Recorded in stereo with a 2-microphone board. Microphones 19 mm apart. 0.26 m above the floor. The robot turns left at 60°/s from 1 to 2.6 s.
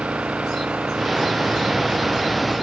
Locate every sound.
0.0 s an engine running: 75° right; by 2.6 s 170° right